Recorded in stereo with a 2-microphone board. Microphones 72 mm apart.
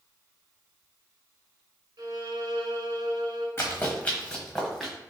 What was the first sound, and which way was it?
A violin, 80° right.